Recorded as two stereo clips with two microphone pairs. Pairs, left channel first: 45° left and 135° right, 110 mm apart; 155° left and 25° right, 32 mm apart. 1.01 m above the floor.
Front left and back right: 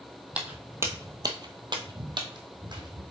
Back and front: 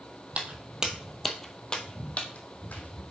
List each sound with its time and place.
0.3 s footsteps: 60° right, 1.6 m; by 3.0 s straight behind, 2.5 m